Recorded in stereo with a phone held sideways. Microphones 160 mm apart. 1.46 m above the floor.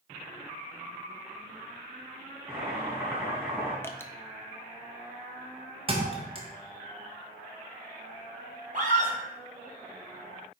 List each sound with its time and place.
2.5 s boiling: 15° right (ahead or behind), 3 m
3.8 s dripping: 15° left (ahead or behind), 0.7 m
5.9 s a thud: 35° right (ahead or behind), 1.4 m
8.7 s a scream: 55° right (ahead or behind), 3 m